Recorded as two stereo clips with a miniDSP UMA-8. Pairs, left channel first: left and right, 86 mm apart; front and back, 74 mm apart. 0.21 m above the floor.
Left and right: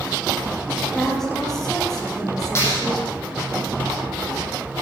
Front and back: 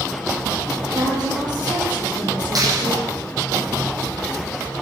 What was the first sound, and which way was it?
A woman speaking, 175° left.